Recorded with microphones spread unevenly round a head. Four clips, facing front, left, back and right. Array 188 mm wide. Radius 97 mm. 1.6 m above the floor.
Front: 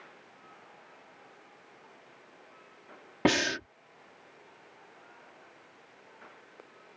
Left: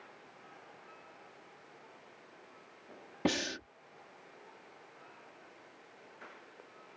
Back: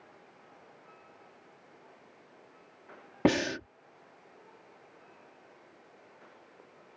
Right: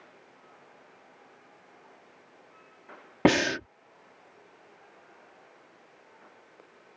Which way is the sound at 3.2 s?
95° right.